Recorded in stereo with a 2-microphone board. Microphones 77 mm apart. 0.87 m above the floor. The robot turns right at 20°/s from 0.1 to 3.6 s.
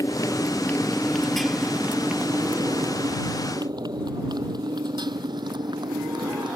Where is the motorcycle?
45° left (ahead or behind); by 6.6 s 70° right (ahead or behind).